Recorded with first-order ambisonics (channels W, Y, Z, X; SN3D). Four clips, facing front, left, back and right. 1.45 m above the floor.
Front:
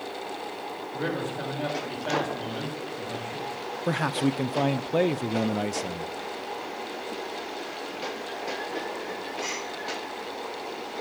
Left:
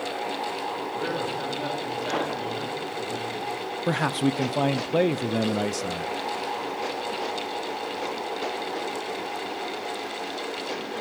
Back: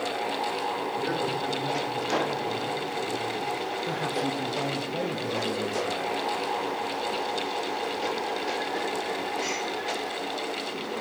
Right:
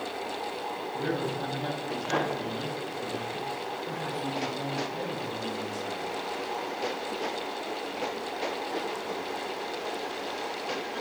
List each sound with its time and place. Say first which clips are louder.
0.9 s a man speaking: even, back 2 dB; 25° left, 8.5 m
3.9 s a man speaking: left 13 dB, front 6 dB; 60° left, 0.7 m